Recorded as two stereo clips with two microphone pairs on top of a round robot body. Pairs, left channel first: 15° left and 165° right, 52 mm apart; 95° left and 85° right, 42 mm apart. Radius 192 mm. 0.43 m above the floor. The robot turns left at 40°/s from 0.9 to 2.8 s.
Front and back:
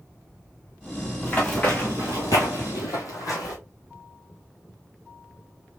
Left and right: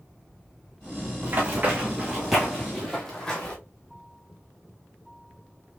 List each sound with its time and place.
1.2 s running footsteps: 35° right, 0.8 m; by 3.5 s 20° left, 1.3 m